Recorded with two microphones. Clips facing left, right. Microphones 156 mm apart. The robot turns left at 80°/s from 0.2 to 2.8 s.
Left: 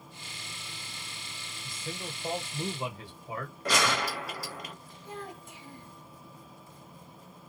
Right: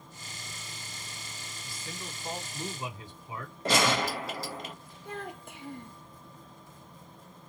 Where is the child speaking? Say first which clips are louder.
Right 2 dB; 60° right (ahead or behind), 0.8 m.